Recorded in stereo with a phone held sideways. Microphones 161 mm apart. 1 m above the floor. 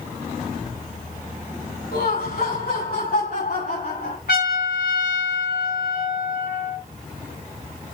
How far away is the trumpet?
About 6.5 m.